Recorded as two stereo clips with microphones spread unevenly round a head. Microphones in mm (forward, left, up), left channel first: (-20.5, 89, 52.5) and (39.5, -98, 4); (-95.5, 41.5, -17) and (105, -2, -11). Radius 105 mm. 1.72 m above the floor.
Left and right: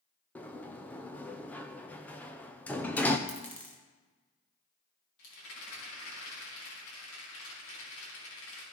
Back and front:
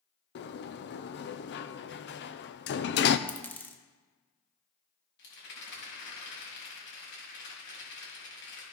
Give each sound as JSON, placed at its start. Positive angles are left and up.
{"t": 0.3, "sound": "a sliding door", "azimuth_deg": 175, "distance_m": 0.6}
{"t": 3.3, "sound": "a dropped coin", "azimuth_deg": 95, "distance_m": 1.1}
{"t": 5.2, "sound": "a rattle", "azimuth_deg": 130, "distance_m": 3.5}